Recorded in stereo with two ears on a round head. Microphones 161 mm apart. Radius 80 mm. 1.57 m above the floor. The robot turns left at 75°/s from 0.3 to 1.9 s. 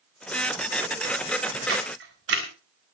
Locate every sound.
1.7 s a camera shutter: 80° right, 4.5 m; by 2.5 s 75° right (ahead or behind), 4.5 m